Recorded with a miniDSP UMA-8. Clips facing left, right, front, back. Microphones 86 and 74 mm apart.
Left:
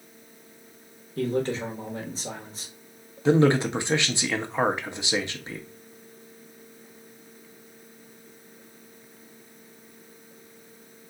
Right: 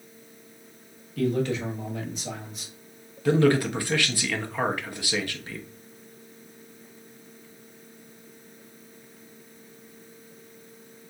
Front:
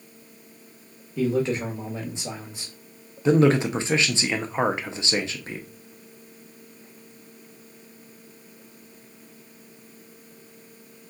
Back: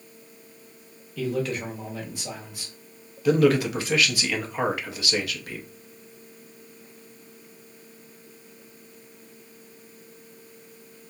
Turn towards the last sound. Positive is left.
turn(degrees=45)